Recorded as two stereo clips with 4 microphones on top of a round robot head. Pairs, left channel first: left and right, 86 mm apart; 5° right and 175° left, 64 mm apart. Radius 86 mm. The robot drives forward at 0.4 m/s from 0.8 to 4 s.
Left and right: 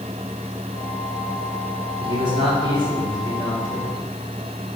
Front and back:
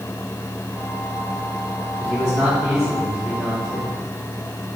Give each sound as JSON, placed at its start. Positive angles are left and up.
{"t": 2.0, "sound": "a man speaking", "azimuth_deg": -95, "distance_m": 3.0}